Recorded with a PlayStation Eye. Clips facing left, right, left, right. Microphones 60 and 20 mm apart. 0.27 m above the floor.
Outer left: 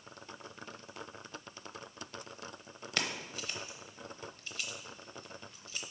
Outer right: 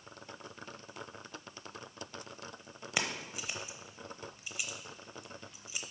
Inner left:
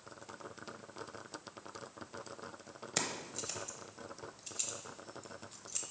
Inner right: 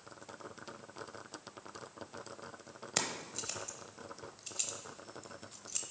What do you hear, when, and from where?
3.0 s keys jangling: 15° right (ahead or behind), 0.8 m